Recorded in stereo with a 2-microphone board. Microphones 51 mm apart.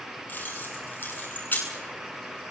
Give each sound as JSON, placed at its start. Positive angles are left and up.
{"t": 0.3, "sound": "keys jangling", "side_deg": 35, "distance_m": 9.5}